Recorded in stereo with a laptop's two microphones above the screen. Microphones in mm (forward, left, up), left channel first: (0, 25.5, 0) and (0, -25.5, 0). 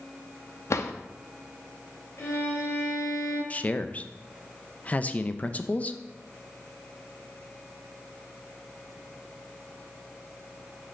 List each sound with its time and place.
0.7 s a drawer: 70° left (ahead or behind), 0.5 m
2.2 s a violin: 80° left, 2 m
3.5 s a man speaking: 30° left (ahead or behind), 0.5 m